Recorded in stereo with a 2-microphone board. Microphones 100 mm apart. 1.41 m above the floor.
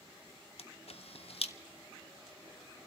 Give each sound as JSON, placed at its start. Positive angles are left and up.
{"t": 0.6, "sound": "a camera shutter", "side_deg": 85, "distance_m": 0.6}